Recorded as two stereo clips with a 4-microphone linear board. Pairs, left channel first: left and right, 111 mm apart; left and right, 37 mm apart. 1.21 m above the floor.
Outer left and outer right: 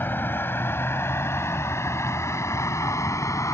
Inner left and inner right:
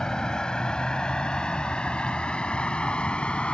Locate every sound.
0.0 s a vehicle: 20° left (ahead or behind); by 3.5 s 30° left (ahead or behind)